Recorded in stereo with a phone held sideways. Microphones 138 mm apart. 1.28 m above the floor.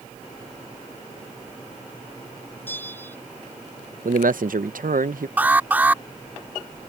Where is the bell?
15° left (ahead or behind).